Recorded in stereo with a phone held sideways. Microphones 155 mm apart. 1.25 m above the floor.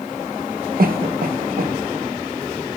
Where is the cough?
70° right (ahead or behind), 1.1 m.